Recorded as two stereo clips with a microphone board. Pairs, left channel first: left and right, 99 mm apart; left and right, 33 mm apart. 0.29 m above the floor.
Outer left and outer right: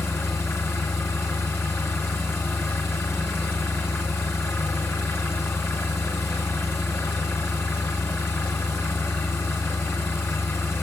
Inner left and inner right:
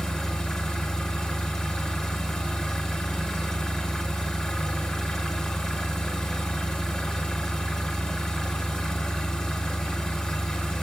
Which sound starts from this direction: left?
An engine running, at 0.0 s.